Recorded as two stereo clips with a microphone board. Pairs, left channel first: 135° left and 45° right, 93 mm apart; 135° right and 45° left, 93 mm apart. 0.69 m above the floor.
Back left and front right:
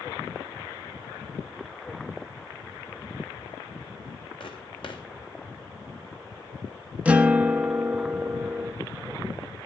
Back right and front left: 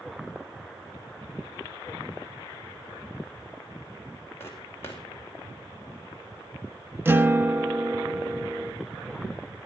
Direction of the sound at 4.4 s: 160° left.